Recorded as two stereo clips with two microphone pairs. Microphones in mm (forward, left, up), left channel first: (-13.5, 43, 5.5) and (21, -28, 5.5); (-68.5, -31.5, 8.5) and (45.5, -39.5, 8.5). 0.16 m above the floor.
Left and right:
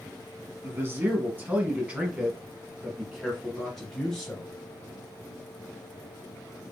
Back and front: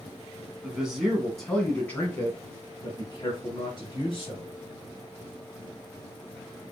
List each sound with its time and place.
0.6 s a man speaking: 80° right, 1.8 m; by 4.6 s 170° right, 2.5 m